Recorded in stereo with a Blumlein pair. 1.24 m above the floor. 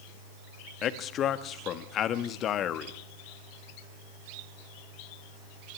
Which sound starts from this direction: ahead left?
A man speaking, at 0.8 s.